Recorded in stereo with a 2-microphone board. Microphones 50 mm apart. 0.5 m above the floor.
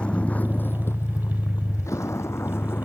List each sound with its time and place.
0.0 s a vehicle: 20° left (ahead or behind); by 2.9 s 50° left (ahead or behind)